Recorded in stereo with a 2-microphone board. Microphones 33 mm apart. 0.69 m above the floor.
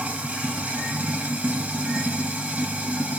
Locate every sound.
0.0 s running water: 45° right (ahead or behind), 1.0 m